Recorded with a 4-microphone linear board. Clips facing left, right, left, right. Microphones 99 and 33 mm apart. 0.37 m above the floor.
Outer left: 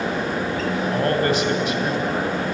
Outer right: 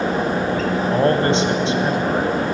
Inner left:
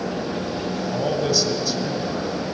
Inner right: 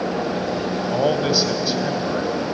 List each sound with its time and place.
0.9 s a man speaking: 30° right (ahead or behind), 3 m